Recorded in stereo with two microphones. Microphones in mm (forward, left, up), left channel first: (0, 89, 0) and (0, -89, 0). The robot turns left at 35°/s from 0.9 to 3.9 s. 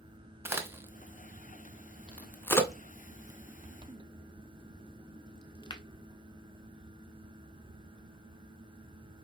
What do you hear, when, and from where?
0.5 s a crack: 10° right (ahead or behind), 0.6 m; by 5.8 s 25° left (ahead or behind), 0.6 m